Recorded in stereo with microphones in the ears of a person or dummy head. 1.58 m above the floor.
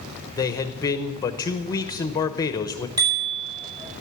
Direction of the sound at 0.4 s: 20° left (ahead or behind).